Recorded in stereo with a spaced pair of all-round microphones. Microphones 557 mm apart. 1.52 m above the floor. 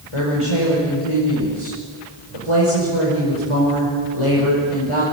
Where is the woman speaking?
65° left (ahead or behind), 5.5 m.